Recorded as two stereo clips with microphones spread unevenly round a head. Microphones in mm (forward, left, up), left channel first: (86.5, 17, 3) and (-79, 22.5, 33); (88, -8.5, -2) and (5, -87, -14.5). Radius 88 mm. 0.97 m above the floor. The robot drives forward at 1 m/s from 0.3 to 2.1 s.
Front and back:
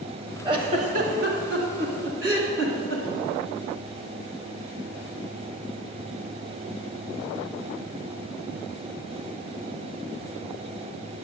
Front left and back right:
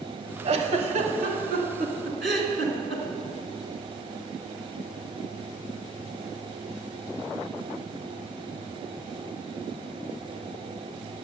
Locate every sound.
0.5 s a giggle: 130° right, 1.0 m; by 3.0 s 165° right, 2.5 m